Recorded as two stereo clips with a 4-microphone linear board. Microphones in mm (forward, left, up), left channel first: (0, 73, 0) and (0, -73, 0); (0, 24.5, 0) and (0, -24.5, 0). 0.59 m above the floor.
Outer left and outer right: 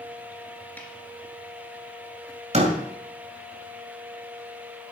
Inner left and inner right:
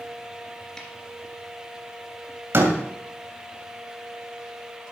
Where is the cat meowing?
I don't hear a cat meowing.